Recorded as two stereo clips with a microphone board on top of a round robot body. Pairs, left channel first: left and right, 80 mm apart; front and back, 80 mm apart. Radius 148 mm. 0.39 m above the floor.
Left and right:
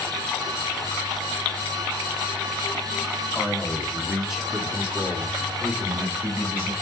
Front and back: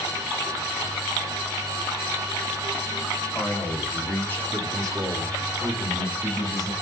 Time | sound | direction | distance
3.3 | a man speaking | 5° left | 1.8 m